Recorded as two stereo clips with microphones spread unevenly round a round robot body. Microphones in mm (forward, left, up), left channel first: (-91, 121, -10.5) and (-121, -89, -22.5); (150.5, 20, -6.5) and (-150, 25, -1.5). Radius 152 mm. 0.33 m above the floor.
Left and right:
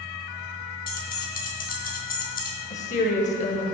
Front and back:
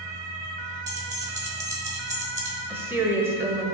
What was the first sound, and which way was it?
Keys jangling, 105° left.